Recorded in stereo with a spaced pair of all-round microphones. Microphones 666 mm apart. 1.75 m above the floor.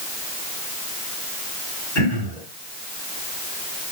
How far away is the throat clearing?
About 8.5 m.